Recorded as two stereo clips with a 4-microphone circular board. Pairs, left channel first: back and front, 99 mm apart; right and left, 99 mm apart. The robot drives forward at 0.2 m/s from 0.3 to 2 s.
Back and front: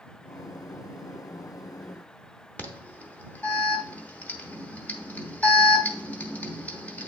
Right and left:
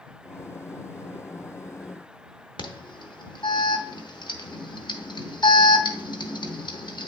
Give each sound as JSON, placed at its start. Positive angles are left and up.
{"t": 2.6, "sound": "an alarm", "azimuth_deg": -110, "distance_m": 0.8}